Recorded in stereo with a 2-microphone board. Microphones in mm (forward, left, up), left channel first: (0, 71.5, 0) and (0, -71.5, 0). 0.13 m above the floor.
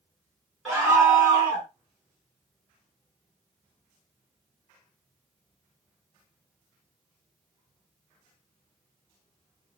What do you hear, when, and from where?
0.7 s a scream: centre (ahead or behind), 1.2 m